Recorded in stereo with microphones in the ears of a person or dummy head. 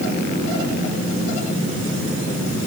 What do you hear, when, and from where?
Only background noise.